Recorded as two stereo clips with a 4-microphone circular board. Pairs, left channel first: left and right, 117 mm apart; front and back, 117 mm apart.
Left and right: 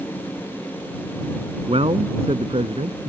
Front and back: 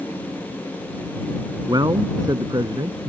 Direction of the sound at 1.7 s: 125° right.